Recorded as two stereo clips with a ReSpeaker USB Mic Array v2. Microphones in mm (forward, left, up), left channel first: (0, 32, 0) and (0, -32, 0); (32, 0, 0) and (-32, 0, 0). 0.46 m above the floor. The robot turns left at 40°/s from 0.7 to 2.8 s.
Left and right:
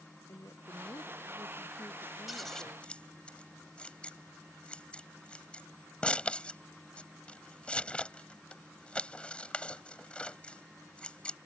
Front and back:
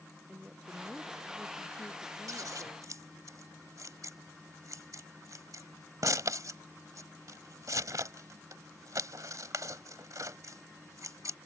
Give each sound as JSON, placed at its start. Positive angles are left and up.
{"t": 0.3, "sound": "a woman speaking", "azimuth_deg": 110}
{"t": 2.3, "sound": "scissors", "azimuth_deg": 180}